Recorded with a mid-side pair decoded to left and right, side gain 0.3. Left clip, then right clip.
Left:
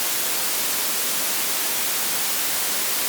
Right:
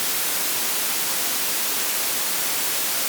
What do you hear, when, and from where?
Only background noise.